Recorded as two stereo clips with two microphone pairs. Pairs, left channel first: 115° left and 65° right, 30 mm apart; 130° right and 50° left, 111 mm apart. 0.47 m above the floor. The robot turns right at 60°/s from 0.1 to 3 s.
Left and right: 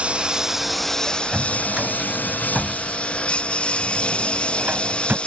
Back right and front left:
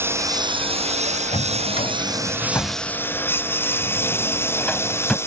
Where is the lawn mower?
20° right; by 5.3 s 165° left.